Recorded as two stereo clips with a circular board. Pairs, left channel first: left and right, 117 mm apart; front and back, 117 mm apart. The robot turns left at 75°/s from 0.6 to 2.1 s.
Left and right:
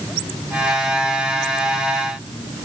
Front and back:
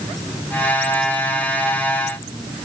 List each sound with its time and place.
Only background noise.